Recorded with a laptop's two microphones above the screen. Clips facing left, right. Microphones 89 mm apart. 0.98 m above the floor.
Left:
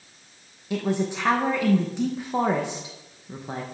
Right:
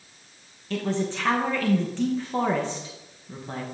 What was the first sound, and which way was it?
A man speaking, 15° left (ahead or behind).